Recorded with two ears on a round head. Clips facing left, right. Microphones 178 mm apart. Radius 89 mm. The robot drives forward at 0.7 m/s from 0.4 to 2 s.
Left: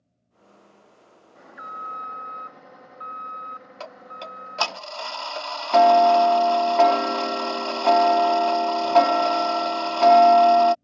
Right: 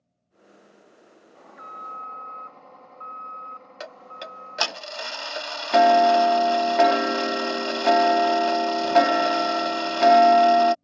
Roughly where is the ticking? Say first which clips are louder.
Even; centre.